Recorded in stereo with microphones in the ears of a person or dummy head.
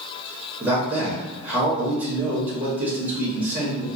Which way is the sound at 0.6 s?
10° right (ahead or behind).